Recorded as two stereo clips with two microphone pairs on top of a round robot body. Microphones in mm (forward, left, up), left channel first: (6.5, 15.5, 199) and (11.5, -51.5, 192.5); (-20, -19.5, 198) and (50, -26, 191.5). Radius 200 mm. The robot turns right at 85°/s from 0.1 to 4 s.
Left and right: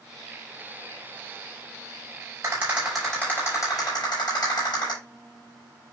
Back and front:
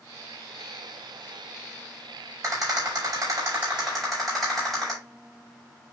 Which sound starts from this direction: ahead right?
A rattle, at 2.4 s.